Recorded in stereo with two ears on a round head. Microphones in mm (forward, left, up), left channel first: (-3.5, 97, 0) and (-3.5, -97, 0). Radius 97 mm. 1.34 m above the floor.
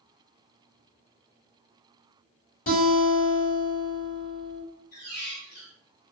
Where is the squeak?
45° left (ahead or behind), 1.4 m.